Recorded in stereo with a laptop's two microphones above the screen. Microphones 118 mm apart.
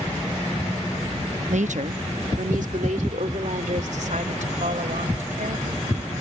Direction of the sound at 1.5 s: 75° right (ahead or behind).